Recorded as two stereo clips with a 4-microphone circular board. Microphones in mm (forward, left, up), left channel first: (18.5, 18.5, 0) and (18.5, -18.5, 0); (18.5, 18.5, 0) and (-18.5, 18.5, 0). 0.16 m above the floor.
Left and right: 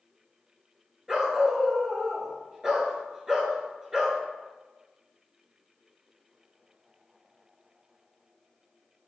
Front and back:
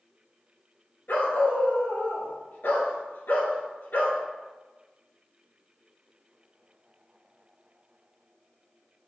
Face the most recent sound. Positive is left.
turn(degrees=-20)